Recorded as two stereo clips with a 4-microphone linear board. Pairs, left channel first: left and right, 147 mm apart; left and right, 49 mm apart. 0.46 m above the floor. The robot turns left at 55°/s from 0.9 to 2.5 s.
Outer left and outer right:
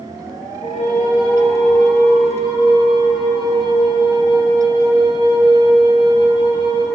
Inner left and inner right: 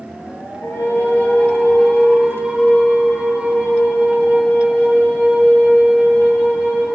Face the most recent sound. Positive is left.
turn(degrees=-30)